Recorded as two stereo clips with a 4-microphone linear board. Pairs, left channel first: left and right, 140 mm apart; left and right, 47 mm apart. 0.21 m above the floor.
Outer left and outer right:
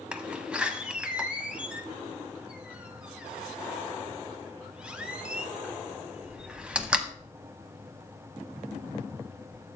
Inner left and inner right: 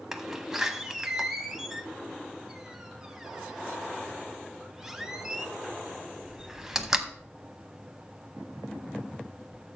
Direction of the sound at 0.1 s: 5° right (ahead or behind).